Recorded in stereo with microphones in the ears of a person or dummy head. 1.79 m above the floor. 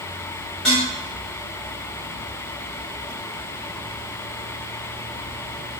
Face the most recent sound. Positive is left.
turn(degrees=5)  # may be behind; listen again after turning